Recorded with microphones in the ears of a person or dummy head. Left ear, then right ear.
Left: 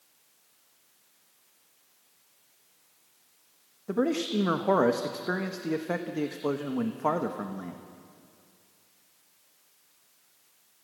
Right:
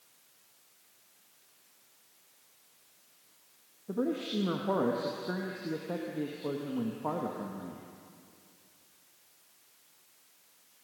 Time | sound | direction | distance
3.9 | a man speaking | 70° left (ahead or behind) | 1.3 m